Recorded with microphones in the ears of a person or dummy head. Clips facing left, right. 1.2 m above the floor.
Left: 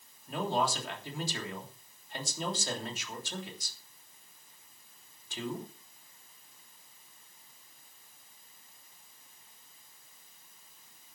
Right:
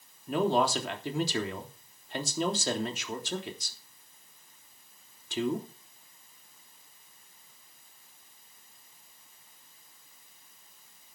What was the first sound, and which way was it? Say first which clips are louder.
A man speaking: right 5 dB; 55° right (ahead or behind).